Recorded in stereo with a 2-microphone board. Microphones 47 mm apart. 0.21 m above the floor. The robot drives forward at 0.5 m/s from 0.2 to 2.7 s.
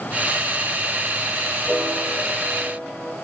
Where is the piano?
20° right (ahead or behind), 1.6 m; by 3.1 s 15° right (ahead or behind), 2 m.